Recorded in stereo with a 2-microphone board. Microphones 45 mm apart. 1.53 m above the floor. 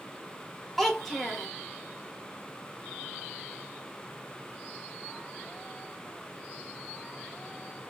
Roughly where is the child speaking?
Centre.